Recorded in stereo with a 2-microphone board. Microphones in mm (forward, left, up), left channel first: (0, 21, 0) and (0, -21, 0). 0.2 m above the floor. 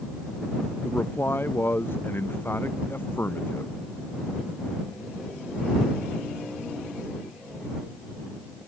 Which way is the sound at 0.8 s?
55° left (ahead or behind).